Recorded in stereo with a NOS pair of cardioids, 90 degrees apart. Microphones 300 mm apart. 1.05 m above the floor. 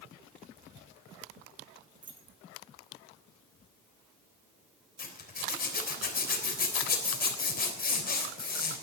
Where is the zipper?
30° left, 3.5 m.